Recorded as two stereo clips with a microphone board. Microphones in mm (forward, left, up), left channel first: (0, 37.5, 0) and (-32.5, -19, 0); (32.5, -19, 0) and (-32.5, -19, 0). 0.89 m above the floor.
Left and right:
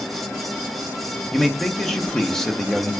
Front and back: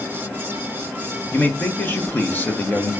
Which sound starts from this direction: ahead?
A man speaking, at 1.3 s.